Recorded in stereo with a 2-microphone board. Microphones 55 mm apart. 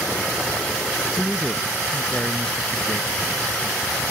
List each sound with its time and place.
1.2 s a man speaking: 15° left (ahead or behind)